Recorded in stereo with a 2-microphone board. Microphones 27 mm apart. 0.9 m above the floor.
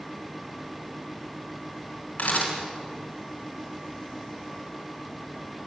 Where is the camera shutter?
70° left (ahead or behind), 4.5 m.